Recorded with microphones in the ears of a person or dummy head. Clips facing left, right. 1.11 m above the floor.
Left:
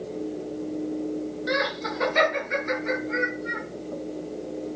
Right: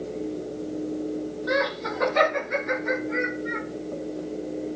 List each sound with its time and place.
1.5 s laughter: 25° left (ahead or behind), 1.3 m; by 3.6 s 30° left (ahead or behind), 2.5 m